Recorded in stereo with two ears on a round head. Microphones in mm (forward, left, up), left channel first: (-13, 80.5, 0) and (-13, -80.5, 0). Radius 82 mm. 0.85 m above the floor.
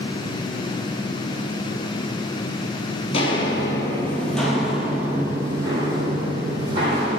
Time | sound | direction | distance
3.1 | footsteps | 35° left (ahead or behind) | 1.4 m